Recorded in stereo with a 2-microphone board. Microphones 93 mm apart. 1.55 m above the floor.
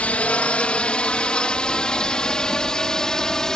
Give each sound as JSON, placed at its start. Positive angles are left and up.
{"t": 0.0, "sound": "a drone", "side_deg": 15}